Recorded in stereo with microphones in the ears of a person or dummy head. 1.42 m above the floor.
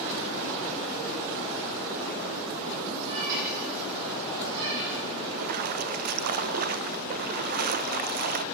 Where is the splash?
50° right (ahead or behind), 0.7 m.